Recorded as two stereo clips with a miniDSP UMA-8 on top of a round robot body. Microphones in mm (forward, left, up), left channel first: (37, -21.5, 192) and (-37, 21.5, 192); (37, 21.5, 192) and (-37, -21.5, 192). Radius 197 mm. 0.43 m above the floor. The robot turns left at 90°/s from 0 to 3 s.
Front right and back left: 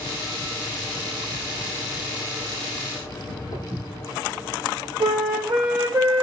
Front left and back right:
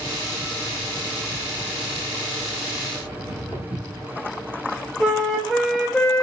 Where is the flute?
115° left, 1.0 m.